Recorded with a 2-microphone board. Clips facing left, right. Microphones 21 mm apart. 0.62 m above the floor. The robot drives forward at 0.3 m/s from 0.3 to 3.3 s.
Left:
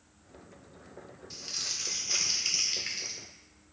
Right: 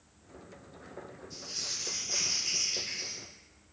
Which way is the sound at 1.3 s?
70° left (ahead or behind).